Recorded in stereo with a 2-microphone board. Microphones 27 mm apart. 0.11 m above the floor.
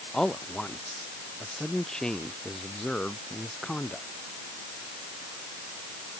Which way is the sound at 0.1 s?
25° left (ahead or behind).